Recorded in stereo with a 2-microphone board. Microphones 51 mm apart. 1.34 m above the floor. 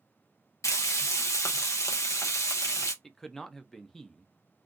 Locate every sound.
0.6 s frying: 80° left, 0.8 m
3.0 s a man speaking: 5° left (ahead or behind), 0.5 m